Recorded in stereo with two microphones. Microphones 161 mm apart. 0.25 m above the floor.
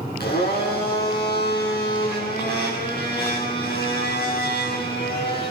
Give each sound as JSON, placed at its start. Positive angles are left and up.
{"t": 0.2, "sound": "a blender", "side_deg": 80, "distance_m": 8.5}